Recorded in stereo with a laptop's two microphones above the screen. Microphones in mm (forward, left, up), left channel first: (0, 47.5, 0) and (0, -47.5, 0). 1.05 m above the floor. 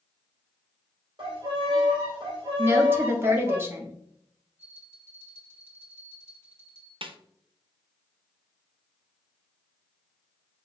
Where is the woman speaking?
25° right (ahead or behind), 1.1 m.